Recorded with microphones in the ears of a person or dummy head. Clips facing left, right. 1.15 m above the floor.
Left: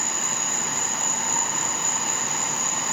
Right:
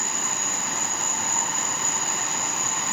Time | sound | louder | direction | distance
0.0 | an insect | even | 25° left (ahead or behind) | 5 m